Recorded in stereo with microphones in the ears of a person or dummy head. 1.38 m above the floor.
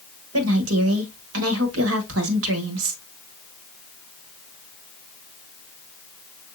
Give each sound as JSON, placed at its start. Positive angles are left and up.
{"t": 0.3, "sound": "a woman speaking", "side_deg": -85, "distance_m": 1.4}